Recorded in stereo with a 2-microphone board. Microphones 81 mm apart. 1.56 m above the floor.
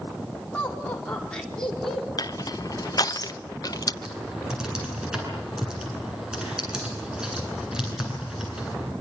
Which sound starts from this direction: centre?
Typing on a keyboard, at 4.0 s.